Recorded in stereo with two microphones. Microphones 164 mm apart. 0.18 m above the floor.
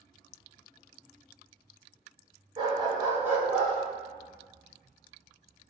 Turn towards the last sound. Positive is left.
turn(degrees=50)  # may be behind; listen again after turning